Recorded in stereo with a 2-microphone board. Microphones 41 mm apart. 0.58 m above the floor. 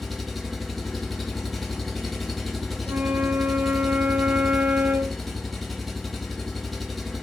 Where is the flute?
50° right (ahead or behind), 0.5 m.